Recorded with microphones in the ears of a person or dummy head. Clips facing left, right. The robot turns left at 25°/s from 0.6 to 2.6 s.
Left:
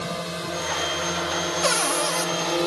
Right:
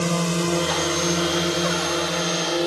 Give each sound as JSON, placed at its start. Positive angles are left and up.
{"t": 0.0, "sound": "a drone", "side_deg": -60}
{"t": 1.6, "sound": "a cupboard door", "side_deg": 55}